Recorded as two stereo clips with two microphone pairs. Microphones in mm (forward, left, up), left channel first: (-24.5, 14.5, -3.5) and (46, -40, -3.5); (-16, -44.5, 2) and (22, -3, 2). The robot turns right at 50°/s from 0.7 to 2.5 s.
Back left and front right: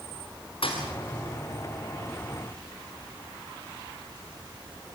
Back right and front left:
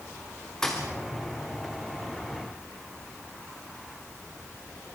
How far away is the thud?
About 5 m.